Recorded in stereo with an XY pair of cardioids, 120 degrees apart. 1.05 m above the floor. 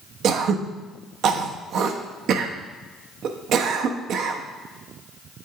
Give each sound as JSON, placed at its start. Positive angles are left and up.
{"t": 0.2, "sound": "throat clearing", "azimuth_deg": -60, "distance_m": 0.7}